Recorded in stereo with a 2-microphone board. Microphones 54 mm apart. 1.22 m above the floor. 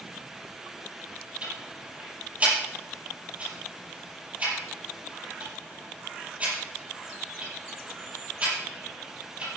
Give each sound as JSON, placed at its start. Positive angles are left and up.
{"t": 1.4, "sound": "ticking", "side_deg": -30, "distance_m": 6.0}